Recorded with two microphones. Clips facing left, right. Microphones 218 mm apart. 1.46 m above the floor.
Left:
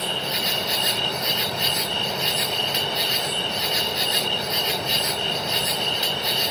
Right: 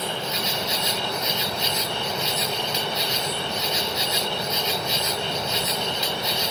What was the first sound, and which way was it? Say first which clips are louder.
An insect: even; 70° left (ahead or behind).